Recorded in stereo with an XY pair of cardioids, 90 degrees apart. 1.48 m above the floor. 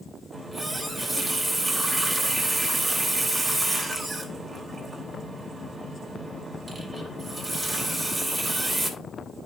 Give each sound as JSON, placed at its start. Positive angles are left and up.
{"t": 0.3, "sound": "a running tap", "azimuth_deg": -20, "distance_m": 3.0}